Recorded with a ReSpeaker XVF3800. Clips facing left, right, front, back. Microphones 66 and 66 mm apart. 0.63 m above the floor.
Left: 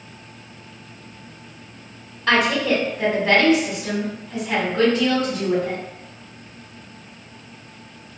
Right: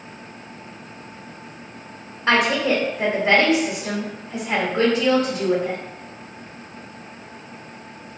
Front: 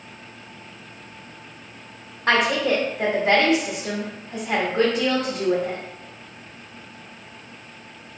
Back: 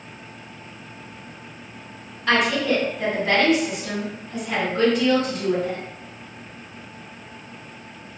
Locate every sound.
2.3 s a woman speaking: 25° right, 1.3 m